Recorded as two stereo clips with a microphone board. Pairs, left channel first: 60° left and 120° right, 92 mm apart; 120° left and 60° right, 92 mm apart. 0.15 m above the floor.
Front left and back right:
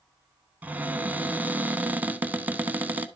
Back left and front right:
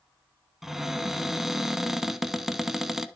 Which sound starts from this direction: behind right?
A cupboard door, at 0.6 s.